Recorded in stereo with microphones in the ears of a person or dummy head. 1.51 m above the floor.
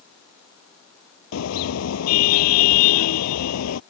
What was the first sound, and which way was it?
A car horn, 80° left.